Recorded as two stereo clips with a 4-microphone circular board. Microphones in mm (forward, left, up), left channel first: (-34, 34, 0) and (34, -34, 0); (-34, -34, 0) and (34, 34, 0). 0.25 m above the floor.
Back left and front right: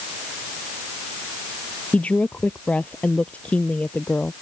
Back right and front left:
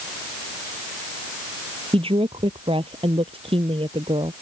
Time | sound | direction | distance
1.9 | a woman speaking | 60° left | ?